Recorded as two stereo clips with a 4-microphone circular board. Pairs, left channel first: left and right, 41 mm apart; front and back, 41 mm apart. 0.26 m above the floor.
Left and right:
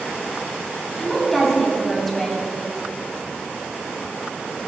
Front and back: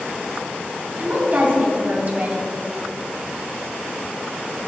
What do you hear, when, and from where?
1.0 s a woman speaking: 170° left, 1.9 m